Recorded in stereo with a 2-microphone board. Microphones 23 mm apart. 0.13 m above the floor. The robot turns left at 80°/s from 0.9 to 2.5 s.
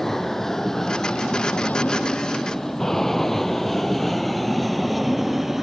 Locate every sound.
0.0 s an aircraft: 15° left (ahead or behind); by 5.6 s 10° right (ahead or behind)